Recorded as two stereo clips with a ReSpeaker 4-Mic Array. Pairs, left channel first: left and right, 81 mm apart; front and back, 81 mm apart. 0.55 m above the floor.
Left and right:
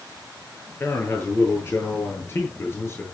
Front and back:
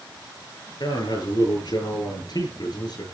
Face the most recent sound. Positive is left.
turn(degrees=30)